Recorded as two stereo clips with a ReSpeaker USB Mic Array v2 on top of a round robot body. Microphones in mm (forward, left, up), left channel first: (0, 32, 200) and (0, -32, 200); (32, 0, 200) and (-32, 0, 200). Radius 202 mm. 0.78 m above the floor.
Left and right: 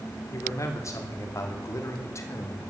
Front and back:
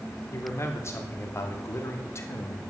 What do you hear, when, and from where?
0.3 s a man speaking: 50° left, 3.5 m; by 2.6 s 45° left, 2.5 m